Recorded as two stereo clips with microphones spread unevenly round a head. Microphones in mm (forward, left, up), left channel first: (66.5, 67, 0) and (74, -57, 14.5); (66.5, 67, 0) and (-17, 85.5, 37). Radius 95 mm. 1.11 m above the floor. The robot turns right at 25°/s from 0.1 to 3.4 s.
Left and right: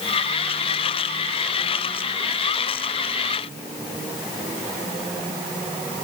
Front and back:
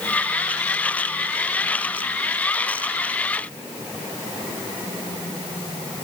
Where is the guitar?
No guitar in this recording.